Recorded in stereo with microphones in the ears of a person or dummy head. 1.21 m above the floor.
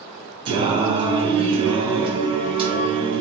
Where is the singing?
25° right (ahead or behind), 0.7 m.